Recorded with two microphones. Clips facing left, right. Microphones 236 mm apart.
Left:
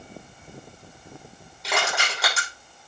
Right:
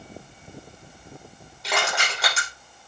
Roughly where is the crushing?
Centre.